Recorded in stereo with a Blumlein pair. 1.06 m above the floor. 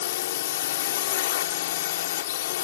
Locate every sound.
0.0 s a drone: 55° left